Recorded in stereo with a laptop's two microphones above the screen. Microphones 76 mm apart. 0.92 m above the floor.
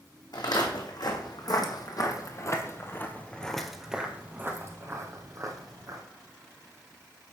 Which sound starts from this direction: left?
Footsteps, at 0.3 s.